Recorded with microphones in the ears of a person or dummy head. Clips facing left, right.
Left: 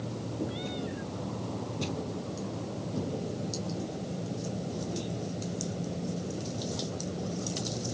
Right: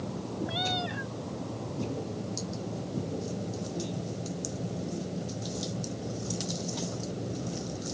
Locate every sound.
0.5 s a cat meowing: 80° right